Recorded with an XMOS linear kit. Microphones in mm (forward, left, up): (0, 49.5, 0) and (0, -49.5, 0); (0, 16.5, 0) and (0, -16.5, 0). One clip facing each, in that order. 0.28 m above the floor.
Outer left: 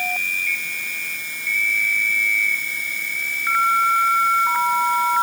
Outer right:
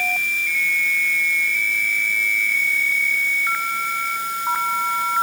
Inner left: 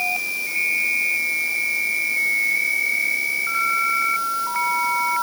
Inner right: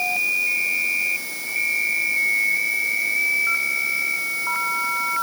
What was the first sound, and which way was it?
Only background noise.